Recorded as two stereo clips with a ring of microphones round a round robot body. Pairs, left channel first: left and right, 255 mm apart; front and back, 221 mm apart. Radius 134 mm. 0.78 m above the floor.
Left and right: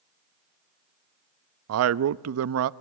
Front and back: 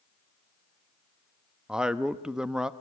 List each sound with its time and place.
1.7 s a man speaking: 95° right, 0.6 m